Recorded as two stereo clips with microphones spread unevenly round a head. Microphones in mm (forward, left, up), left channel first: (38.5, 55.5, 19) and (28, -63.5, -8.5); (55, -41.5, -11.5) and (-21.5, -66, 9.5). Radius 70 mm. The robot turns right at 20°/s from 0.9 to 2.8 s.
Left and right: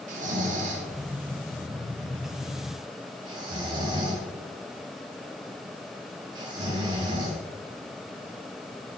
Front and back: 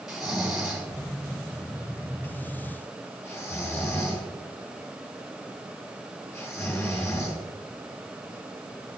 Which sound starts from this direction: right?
Snoring, at 0.1 s.